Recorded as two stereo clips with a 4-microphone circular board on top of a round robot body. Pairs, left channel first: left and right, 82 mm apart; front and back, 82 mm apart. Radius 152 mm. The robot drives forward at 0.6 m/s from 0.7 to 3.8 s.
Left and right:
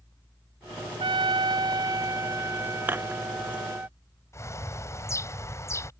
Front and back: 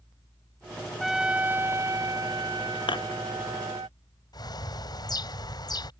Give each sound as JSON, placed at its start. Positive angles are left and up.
{"t": 1.0, "sound": "a trumpet", "azimuth_deg": -90}
{"t": 2.9, "sound": "dishes clattering", "azimuth_deg": -25}
{"t": 4.3, "sound": "a bird", "azimuth_deg": 35}